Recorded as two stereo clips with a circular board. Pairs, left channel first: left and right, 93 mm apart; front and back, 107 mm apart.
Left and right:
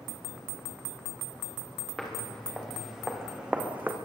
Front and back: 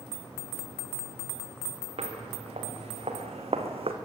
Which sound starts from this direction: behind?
Footsteps, at 2.0 s.